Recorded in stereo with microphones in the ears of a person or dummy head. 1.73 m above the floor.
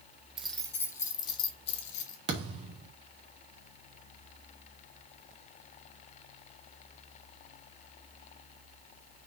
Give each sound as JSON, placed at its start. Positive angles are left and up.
{"t": 0.4, "sound": "keys jangling", "side_deg": 0, "distance_m": 1.2}
{"t": 2.3, "sound": "a thud", "side_deg": -30, "distance_m": 2.0}